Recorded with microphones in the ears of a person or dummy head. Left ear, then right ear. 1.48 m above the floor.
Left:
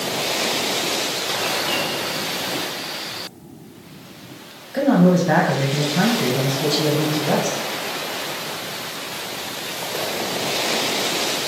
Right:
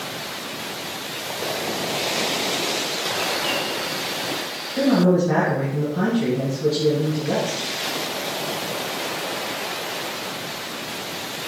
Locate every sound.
4.7 s a man speaking: 75° left (ahead or behind), 1.6 m